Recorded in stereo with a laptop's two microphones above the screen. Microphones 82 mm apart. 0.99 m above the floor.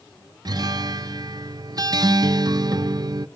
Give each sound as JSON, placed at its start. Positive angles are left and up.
{"t": 0.5, "sound": "a guitar", "side_deg": -50, "distance_m": 0.5}